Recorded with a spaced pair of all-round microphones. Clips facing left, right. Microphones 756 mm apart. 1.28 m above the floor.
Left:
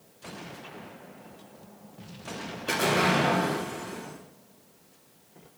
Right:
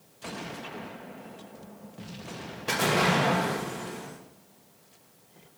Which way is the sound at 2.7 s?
35° right (ahead or behind).